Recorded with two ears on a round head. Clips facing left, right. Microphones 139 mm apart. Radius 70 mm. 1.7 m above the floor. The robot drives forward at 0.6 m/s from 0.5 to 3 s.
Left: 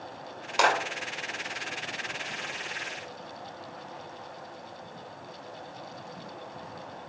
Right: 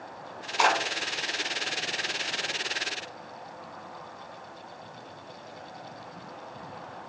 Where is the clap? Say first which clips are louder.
Even; 80° left, 3.5 m; by 0.8 s 85° left, 3.5 m.